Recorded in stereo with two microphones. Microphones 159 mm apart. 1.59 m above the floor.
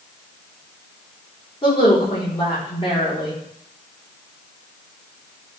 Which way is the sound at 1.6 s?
35° left (ahead or behind).